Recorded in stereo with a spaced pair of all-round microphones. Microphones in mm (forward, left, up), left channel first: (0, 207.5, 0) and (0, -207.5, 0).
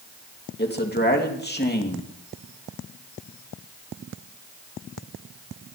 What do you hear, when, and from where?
0.6 s a man speaking: 25° left (ahead or behind), 2.5 m